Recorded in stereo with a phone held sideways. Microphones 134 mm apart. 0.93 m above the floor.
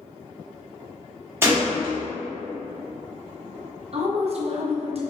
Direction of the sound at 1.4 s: 20° right (ahead or behind).